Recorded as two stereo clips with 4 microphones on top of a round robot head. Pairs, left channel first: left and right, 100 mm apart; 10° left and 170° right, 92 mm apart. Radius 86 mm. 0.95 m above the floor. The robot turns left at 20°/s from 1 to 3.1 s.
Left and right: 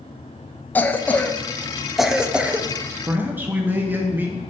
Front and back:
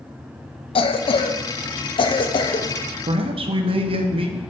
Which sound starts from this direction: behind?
A man speaking, at 3.1 s.